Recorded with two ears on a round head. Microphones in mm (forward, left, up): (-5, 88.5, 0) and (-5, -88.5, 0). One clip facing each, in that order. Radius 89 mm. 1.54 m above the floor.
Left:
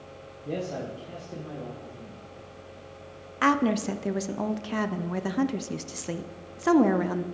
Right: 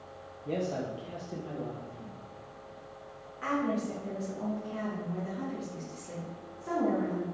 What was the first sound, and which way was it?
A man speaking, 10° left (ahead or behind).